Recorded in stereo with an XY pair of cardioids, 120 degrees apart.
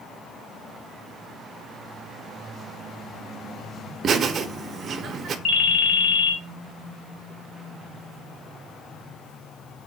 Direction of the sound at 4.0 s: 50° right.